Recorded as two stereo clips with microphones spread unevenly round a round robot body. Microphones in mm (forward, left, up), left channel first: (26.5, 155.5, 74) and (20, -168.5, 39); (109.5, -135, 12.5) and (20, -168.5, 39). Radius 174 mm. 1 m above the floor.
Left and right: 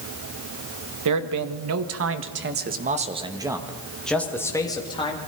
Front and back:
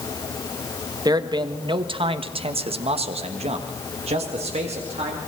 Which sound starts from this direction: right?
A man speaking, at 1.1 s.